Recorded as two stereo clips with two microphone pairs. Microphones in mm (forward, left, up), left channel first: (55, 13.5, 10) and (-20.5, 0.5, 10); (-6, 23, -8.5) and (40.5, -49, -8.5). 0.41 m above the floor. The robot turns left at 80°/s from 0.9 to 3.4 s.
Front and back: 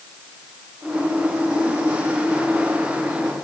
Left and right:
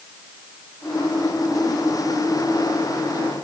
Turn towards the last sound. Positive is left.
No sound to turn to.